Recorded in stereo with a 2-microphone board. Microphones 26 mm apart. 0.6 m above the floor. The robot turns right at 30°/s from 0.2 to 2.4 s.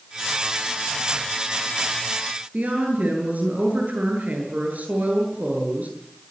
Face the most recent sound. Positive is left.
turn(degrees=-75)  # may be behind; listen again after turning